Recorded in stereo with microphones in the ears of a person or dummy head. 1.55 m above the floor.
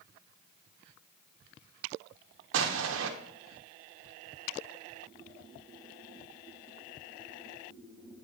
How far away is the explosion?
About 0.8 m.